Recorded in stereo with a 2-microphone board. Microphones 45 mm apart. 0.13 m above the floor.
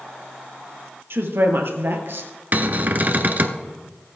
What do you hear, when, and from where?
1.1 s a woman speaking: 65° right (ahead or behind), 2.5 m; by 2.3 s 55° right (ahead or behind), 1.9 m
2.5 s a cupboard door: 45° right (ahead or behind), 0.9 m